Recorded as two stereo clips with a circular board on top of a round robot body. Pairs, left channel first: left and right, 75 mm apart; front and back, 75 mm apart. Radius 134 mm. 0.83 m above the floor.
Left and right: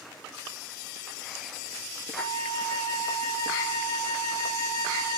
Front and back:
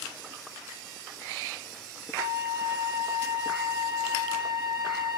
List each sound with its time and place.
2.2 s a flute: 125° left, 2 m